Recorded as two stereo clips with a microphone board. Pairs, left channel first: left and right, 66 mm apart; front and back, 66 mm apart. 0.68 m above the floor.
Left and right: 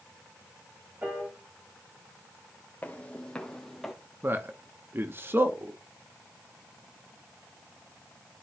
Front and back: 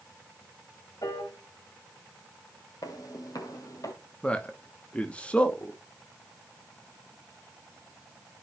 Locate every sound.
1.0 s a piano: 25° right, 3.5 m
2.8 s footsteps: 25° left, 2.0 m; by 3.9 s straight ahead, 1.2 m
4.2 s a man speaking: 60° right, 0.8 m